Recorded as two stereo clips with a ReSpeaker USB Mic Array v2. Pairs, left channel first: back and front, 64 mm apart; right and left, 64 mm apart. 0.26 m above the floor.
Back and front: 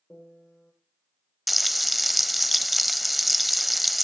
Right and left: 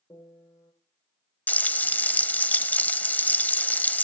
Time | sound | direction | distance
0.1 | a piano | 110° right | 8.5 m
1.5 | frying | 90° right | 0.7 m